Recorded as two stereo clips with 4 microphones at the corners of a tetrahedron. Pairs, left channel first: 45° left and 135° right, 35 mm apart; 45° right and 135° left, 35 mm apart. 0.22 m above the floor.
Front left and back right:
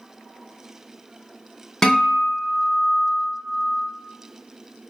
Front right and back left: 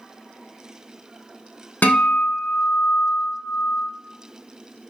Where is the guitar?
25° right, 0.5 m.